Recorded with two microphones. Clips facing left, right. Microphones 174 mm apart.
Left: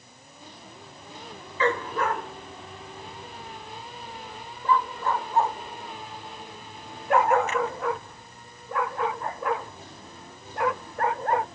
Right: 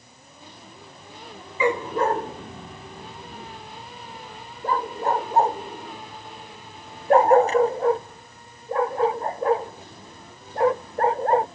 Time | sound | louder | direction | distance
1.6 | a dog barking | right 4 dB | 10° right (ahead or behind) | ?